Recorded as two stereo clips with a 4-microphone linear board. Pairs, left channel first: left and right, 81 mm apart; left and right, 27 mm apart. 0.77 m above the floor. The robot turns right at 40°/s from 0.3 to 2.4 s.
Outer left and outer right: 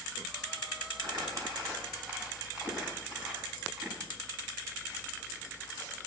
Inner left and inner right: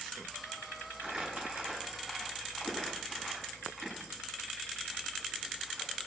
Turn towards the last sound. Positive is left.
turn(degrees=-15)  # may be behind; listen again after turning